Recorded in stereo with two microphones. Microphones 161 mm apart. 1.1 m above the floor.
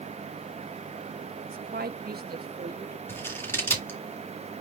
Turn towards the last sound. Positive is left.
turn(degrees=15)  # may be behind; listen again after turning